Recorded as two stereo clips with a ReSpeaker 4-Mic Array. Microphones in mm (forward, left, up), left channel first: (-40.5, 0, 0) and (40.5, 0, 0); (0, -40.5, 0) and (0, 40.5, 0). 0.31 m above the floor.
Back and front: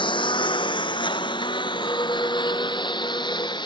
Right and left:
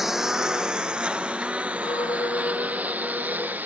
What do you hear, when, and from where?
0.0 s a lawn mower: 175° left; by 3.7 s 155° left
1.8 s a clink: 125° right